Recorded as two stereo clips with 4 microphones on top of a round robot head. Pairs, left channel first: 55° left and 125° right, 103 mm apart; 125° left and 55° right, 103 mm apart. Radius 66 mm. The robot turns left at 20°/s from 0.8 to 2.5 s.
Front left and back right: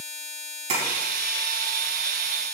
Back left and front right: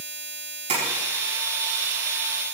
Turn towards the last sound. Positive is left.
turn(degrees=-120)